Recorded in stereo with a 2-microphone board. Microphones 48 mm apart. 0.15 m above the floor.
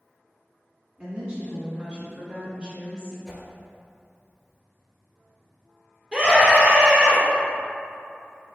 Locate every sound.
1.0 s a woman speaking: 20° right (ahead or behind), 1.8 m; by 3.2 s 15° right (ahead or behind), 1.7 m
3.3 s a whoosh: 10° right (ahead or behind), 0.9 m
6.1 s a scream: 20° right (ahead or behind), 1.5 m